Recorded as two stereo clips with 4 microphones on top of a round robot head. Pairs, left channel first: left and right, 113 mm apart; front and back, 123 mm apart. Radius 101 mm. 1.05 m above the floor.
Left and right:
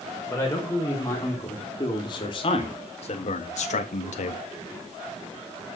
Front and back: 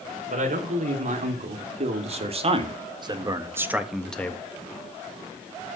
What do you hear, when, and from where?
0.3 s a man speaking: 165° left, 4 m; by 4.4 s 75° left, 1.4 m